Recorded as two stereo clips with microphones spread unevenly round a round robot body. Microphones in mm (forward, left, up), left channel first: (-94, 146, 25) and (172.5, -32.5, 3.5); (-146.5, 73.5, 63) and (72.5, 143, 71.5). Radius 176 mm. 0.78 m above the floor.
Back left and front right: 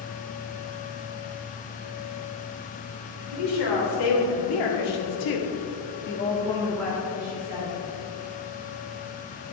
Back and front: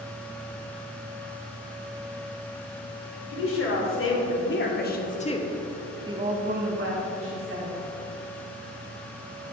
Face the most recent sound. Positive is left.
turn(degrees=40)